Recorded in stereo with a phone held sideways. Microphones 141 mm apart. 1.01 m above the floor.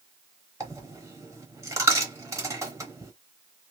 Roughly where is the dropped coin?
Right.